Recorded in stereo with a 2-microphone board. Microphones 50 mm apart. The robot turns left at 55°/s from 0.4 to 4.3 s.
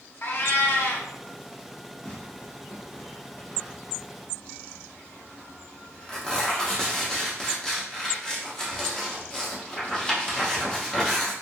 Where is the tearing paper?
25° left (ahead or behind), 0.7 m; by 11.3 s 15° left (ahead or behind), 0.7 m.